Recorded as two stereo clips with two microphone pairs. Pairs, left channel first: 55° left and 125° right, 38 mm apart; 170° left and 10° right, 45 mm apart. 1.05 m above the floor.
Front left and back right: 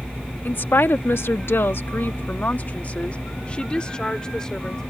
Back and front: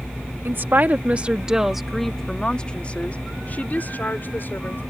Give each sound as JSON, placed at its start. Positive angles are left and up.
{"t": 0.5, "sound": "a woman speaking", "azimuth_deg": 25}